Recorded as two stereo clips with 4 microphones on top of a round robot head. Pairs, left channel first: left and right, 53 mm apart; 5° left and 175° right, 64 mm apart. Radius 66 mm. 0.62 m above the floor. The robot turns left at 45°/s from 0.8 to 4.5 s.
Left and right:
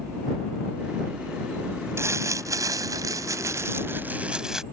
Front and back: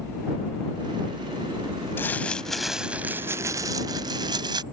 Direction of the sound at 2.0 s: 60° right.